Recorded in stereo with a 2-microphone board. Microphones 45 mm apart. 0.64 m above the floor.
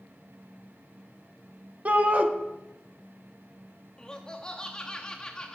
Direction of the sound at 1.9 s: 35° right (ahead or behind).